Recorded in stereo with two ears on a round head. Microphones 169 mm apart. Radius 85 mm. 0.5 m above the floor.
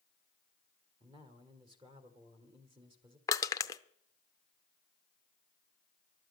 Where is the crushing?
15° left (ahead or behind), 0.6 m.